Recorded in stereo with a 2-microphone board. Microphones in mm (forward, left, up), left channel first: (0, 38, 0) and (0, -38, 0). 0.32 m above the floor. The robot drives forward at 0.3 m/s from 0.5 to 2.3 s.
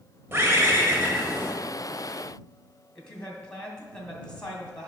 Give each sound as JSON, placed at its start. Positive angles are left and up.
{"t": 0.3, "sound": "a bird", "side_deg": -30, "distance_m": 1.3}
{"t": 3.0, "sound": "a woman speaking", "side_deg": 10, "distance_m": 1.9}